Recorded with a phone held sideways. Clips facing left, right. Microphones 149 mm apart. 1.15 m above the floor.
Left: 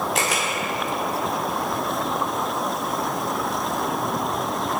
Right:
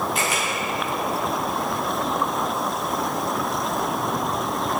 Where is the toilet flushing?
I don't hear a toilet flushing.